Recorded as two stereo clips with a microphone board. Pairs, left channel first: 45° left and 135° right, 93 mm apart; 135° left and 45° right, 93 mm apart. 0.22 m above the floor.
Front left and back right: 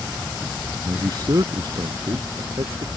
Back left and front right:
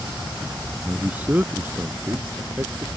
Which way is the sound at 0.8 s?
115° right.